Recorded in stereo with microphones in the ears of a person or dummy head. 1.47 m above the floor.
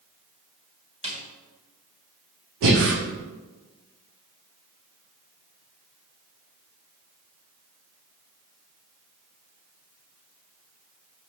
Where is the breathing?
60° right (ahead or behind), 1.9 m.